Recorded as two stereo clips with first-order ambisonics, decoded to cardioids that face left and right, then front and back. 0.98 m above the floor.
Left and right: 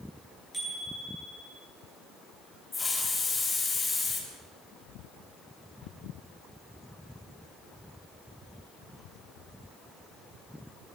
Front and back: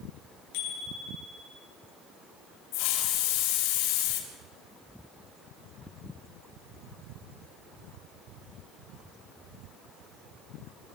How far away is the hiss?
About 3 m.